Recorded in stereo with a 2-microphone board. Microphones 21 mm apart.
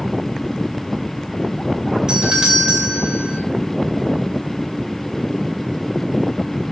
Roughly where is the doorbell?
Right.